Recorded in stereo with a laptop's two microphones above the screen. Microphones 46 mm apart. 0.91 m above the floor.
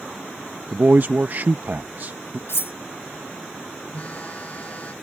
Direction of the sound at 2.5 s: 70° left (ahead or behind).